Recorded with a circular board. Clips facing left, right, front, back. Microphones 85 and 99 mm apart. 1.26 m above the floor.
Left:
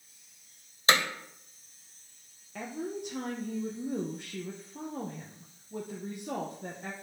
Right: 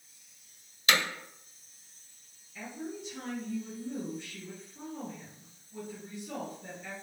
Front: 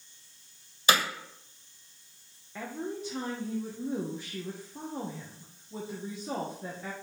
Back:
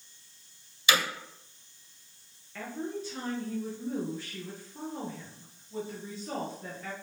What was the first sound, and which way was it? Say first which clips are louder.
Hammering: left 2 dB, front 2 dB; 40° left.